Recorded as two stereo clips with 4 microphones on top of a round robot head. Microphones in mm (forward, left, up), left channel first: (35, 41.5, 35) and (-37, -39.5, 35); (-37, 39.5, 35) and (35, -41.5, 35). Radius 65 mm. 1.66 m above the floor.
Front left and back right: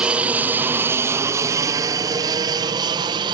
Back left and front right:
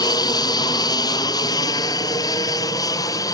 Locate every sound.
0.0 s an aircraft: 155° left; by 3.3 s 175° right